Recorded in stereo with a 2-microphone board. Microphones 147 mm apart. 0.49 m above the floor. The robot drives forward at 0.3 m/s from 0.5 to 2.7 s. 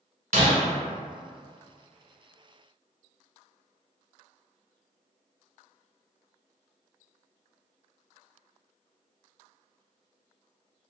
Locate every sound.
0.3 s breaking glass: 70° right (ahead or behind), 1.0 m